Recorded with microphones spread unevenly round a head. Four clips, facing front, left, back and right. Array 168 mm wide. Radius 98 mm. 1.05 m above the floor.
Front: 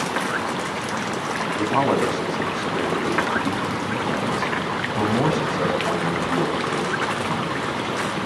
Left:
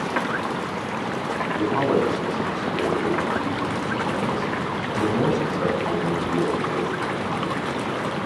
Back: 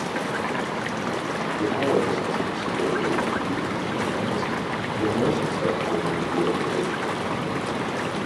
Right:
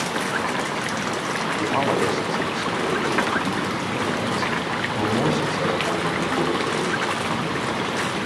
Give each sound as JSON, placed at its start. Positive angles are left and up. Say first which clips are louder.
{"t": 1.6, "sound": "a man speaking", "louder": "left 1 dB, front 2 dB", "azimuth_deg": -25, "distance_m": 10.0}